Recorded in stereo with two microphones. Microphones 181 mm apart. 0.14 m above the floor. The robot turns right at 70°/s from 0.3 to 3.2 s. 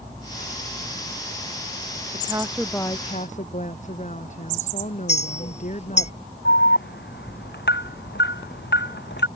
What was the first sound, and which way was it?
A woman speaking, 30° right.